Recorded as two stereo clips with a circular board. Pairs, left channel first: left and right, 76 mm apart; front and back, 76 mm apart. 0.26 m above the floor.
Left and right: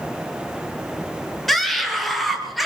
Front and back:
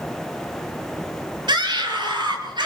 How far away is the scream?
About 5.5 m.